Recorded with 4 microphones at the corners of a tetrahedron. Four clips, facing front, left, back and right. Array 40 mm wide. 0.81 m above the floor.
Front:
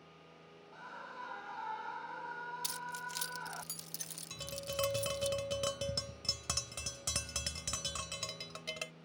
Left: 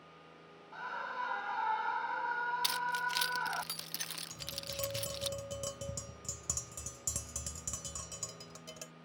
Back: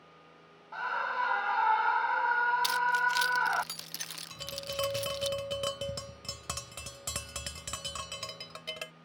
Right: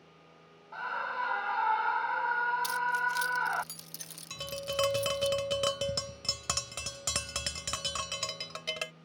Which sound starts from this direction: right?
Tapping, at 4.3 s.